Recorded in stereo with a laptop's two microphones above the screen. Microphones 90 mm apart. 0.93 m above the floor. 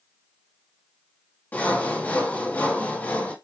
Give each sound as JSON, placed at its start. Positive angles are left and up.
{"t": 1.5, "sound": "sawing", "side_deg": 20, "distance_m": 1.9}